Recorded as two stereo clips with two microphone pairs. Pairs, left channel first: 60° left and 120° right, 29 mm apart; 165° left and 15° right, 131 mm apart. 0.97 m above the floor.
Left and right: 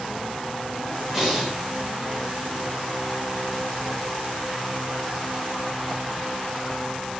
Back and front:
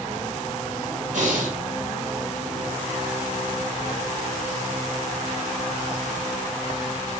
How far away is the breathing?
About 1.1 m.